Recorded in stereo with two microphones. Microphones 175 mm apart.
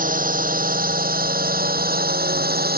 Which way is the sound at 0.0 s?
55° right (ahead or behind).